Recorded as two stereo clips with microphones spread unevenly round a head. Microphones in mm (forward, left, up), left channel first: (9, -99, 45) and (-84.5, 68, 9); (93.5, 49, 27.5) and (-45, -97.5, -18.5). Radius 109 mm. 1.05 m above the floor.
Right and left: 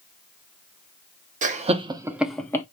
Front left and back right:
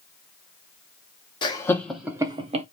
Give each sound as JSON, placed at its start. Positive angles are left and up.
{"t": 1.4, "sound": "laughter", "azimuth_deg": 120, "distance_m": 0.6}